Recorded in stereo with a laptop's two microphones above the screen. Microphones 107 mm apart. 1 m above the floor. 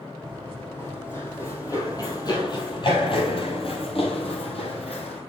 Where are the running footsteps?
10° left (ahead or behind), 2.5 m; by 5.2 s 70° left (ahead or behind), 2.5 m.